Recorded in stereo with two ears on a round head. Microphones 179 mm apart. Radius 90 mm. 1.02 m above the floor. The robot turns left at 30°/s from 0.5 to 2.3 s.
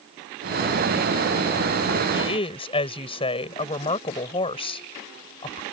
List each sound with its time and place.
2.1 s a woman speaking: 20° left (ahead or behind); by 5.6 s 25° left (ahead or behind)